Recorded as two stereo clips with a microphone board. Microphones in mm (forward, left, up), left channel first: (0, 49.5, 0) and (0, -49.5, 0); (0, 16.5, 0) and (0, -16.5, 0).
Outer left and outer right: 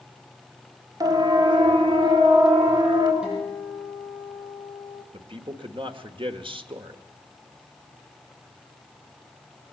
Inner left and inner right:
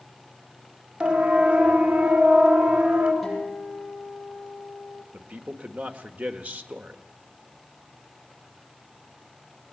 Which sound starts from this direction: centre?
A guitar, at 3.2 s.